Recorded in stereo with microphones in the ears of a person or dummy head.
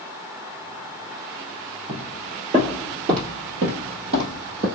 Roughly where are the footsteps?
Right.